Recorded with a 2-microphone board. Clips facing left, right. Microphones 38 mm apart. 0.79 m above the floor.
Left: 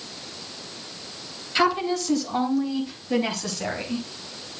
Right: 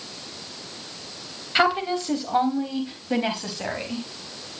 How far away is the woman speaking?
About 4 m.